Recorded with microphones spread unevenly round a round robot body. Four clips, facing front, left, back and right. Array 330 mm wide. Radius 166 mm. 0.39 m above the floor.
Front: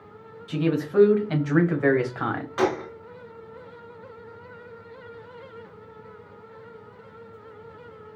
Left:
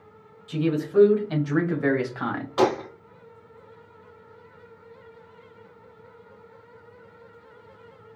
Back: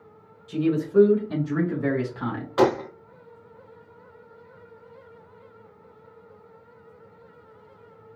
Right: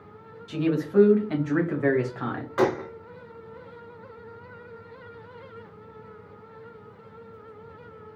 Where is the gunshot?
165° left, 0.7 m.